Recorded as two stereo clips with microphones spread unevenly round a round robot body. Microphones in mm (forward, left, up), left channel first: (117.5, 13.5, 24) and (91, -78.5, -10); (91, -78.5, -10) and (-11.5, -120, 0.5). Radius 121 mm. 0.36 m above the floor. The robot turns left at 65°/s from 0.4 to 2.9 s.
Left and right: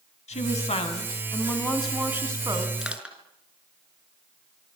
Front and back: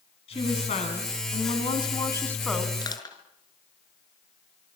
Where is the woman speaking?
70° left, 3.5 m; by 2.7 s 80° right, 3.5 m.